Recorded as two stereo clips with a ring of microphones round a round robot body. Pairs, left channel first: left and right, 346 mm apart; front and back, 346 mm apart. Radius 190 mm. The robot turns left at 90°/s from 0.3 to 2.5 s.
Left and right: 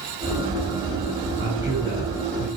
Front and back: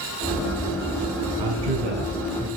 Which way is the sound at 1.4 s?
155° right.